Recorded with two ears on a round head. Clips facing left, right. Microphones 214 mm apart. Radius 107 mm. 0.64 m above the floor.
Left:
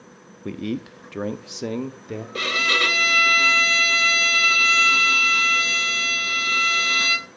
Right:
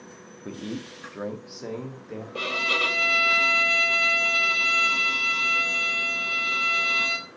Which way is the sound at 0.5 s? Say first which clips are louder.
Left 6 dB; 30° left (ahead or behind).